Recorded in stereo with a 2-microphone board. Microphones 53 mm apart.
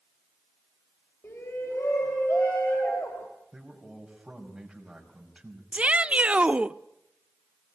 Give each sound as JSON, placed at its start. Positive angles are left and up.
{"t": 1.2, "sound": "a shout", "side_deg": 65, "distance_m": 3.5}
{"t": 3.5, "sound": "a man speaking", "side_deg": -5, "distance_m": 5.0}
{"t": 5.7, "sound": "a shout", "side_deg": -25, "distance_m": 0.6}